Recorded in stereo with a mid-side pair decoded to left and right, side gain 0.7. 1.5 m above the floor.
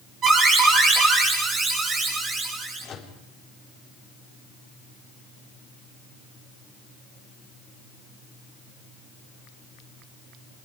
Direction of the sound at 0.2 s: 35° right.